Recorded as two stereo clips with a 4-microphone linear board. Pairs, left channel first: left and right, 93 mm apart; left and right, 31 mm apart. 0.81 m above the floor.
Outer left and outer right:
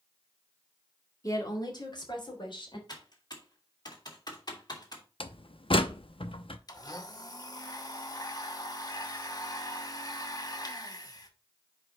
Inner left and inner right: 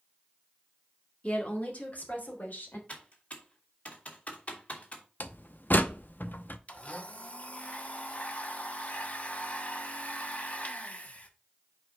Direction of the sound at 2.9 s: 50° left (ahead or behind).